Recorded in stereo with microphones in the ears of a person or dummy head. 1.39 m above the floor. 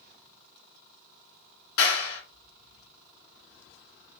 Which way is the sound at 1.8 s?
65° left (ahead or behind).